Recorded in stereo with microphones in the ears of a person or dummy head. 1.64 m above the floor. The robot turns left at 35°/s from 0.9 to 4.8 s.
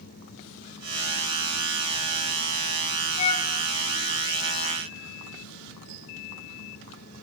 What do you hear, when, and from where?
3.2 s a flute: 50° left (ahead or behind), 1.9 m; by 3.5 s 40° left (ahead or behind), 1.9 m